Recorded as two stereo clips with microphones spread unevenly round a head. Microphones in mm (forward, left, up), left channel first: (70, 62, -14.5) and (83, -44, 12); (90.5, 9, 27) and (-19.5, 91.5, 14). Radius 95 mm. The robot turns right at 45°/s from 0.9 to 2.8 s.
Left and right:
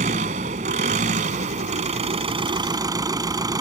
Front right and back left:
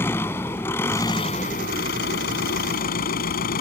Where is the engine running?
115° right; by 3.6 s 30° right.